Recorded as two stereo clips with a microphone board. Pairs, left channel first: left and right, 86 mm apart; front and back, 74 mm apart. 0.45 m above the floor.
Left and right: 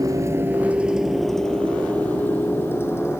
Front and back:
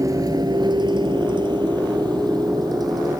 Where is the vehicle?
135° right; by 3.2 s 150° left.